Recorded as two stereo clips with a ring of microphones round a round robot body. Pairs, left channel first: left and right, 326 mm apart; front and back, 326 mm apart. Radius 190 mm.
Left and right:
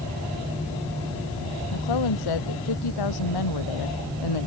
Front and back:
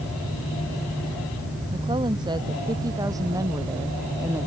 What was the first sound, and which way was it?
A woman speaking, 100° left.